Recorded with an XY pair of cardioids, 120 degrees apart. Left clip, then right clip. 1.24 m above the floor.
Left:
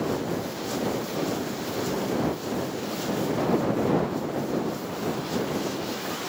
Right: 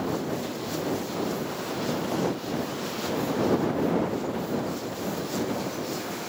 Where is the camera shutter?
No camera shutter in this recording.